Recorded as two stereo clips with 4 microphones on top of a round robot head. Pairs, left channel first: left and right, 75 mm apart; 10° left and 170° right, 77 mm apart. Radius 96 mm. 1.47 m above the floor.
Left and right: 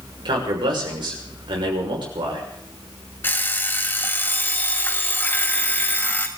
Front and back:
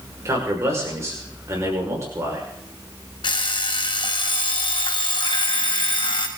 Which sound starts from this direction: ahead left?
An alarm clock, at 3.2 s.